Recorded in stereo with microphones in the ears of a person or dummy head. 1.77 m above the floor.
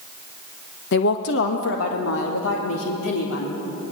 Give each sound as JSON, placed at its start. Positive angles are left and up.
{"t": 0.9, "sound": "a woman speaking", "side_deg": 60, "distance_m": 1.3}